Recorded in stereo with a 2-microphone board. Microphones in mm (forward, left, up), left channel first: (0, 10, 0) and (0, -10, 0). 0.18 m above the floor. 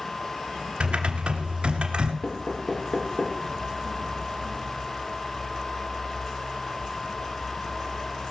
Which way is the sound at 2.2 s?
50° left (ahead or behind).